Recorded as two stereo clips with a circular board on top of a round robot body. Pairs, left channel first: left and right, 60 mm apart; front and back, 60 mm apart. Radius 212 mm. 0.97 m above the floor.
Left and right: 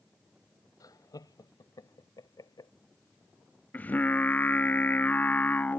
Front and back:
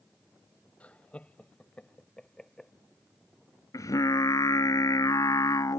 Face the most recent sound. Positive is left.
turn(degrees=30)